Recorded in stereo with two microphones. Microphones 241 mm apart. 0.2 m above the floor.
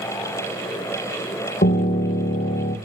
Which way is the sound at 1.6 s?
40° left (ahead or behind).